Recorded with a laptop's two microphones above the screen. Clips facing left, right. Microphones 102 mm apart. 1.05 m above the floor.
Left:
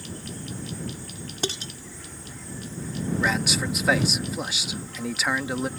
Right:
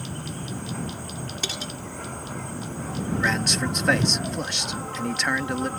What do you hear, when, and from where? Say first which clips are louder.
0.0 s an insect: right 3 dB; 60° right (ahead or behind)
1.4 s dishes clattering: left 7 dB; 35° left (ahead or behind)
3.2 s a man speaking: even; 5° left (ahead or behind)